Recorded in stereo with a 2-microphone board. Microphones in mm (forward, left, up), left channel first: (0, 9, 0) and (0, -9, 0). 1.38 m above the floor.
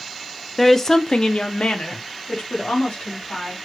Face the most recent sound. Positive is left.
turn(degrees=80)